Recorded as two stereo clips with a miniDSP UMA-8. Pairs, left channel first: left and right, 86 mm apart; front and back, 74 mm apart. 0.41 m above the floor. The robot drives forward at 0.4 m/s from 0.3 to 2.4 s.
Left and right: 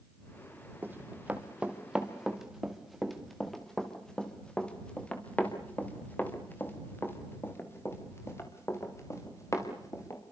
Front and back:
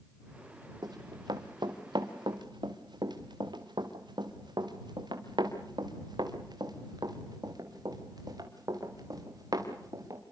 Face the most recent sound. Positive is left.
turn(degrees=145)